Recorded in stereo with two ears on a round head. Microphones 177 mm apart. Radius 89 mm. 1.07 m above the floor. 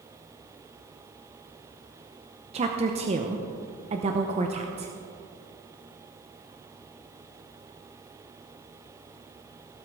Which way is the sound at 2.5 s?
30° right (ahead or behind).